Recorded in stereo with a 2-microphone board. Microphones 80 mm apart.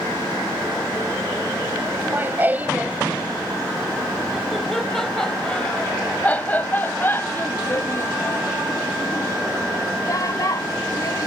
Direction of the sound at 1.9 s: 25° right (ahead or behind).